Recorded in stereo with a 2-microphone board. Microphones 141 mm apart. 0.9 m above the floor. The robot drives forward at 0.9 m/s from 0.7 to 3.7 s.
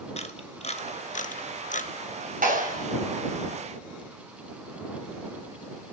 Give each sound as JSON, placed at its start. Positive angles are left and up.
{"t": 0.2, "sound": "a camera shutter", "side_deg": 50, "distance_m": 1.2}
{"t": 2.4, "sound": "a clap", "side_deg": -75, "distance_m": 6.5}